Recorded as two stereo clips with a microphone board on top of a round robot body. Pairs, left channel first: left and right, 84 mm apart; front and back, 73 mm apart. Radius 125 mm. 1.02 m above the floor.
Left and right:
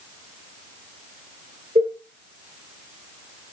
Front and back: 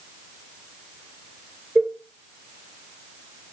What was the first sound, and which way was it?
A cowbell, 105° right.